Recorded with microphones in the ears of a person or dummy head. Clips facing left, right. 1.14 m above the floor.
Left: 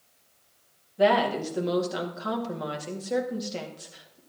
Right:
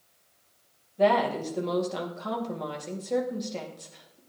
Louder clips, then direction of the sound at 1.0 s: Left 1 dB; 5° left (ahead or behind).